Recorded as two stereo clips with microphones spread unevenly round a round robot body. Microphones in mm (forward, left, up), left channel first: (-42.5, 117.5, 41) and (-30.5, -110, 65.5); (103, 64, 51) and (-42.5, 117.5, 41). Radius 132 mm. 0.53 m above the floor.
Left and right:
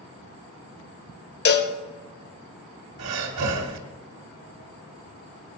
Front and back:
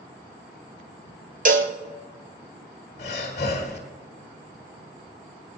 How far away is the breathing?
About 1.6 m.